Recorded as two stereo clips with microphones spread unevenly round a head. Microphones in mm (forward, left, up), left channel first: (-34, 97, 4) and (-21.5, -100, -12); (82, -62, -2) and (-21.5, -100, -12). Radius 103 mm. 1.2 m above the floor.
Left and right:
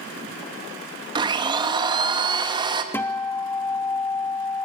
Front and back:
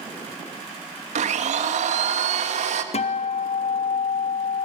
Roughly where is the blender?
Behind right.